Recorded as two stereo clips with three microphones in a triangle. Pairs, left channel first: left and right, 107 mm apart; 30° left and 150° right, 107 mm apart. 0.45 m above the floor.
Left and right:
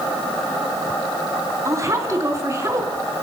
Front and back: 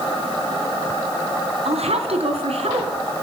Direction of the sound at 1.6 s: 150° right.